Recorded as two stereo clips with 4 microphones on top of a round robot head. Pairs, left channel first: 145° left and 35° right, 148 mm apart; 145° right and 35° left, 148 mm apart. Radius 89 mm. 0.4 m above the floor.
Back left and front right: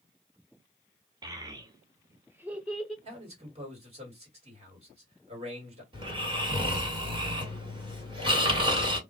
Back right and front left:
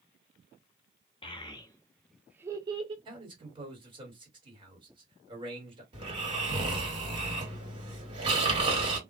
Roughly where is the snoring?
Ahead.